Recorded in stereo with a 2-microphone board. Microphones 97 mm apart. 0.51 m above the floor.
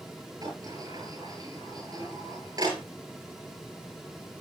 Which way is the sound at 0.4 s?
40° right (ahead or behind).